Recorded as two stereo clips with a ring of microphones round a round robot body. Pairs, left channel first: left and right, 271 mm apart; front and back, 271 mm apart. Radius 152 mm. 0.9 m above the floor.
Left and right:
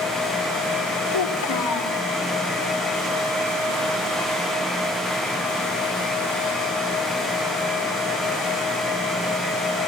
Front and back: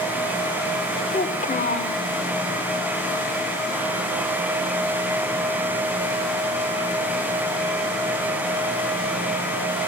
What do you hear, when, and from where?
1.1 s a child speaking: 65° left, 2 m